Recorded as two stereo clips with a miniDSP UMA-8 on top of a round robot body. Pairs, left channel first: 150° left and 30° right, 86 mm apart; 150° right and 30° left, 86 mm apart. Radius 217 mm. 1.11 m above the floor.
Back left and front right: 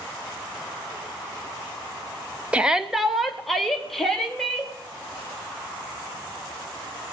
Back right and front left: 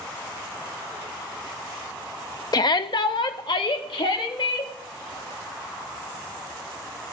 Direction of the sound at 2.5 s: 110° right.